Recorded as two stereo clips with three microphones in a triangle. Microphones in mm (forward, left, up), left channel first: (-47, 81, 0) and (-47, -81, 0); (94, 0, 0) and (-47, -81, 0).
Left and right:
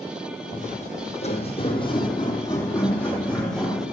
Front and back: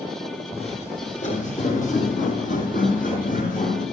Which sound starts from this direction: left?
Footsteps, at 0.5 s.